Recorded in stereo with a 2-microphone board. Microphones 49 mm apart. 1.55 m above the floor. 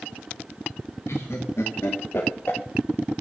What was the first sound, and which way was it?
Laughter, 75° left (ahead or behind).